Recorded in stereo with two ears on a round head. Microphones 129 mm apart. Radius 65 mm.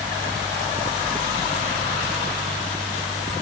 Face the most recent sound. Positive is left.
No sound to turn to.